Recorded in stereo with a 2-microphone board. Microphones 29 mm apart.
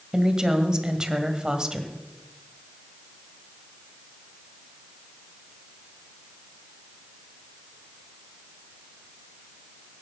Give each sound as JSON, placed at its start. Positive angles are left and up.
{"t": 0.1, "sound": "a woman speaking", "side_deg": -25, "distance_m": 1.8}